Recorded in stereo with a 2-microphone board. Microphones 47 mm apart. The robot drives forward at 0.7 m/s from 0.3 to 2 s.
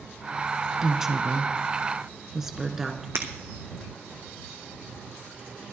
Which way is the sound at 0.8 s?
10° right (ahead or behind).